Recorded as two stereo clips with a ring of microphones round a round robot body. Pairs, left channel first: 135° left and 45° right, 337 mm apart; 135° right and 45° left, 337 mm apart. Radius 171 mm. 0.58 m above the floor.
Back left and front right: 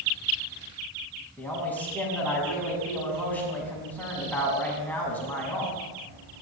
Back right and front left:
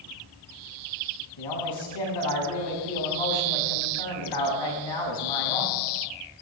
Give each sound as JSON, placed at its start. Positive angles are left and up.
{"t": 1.4, "sound": "a man speaking", "azimuth_deg": -140, "distance_m": 6.0}